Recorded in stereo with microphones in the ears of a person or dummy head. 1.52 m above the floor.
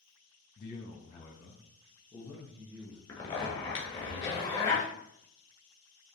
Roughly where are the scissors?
No scissors in this recording.